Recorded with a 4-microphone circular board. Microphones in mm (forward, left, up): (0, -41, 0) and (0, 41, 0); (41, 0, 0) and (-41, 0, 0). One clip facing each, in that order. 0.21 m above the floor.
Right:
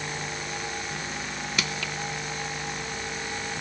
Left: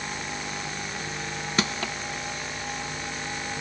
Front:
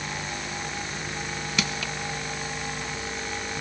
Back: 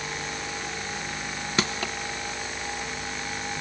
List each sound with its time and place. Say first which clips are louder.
1.6 s crushing: left 5 dB, back 3 dB; 135° left, 0.6 m